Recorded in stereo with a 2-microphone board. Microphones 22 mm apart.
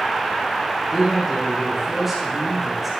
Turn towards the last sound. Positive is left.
turn(degrees=0)  # may be behind; listen again after turning